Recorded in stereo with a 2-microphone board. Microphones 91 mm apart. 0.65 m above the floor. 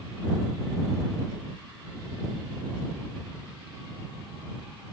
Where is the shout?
No shout in this recording.